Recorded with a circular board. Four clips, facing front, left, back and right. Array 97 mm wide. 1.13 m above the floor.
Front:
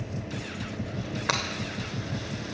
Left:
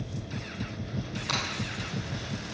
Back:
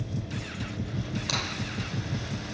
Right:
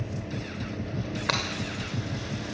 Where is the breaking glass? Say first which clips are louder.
Right 3 dB, front 7 dB; 40° right, 2.5 m.